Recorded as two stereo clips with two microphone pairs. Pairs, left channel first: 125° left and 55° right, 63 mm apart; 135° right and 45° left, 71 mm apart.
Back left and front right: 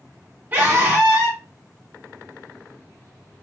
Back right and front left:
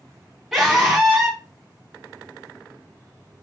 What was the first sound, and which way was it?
A scream, 35° right.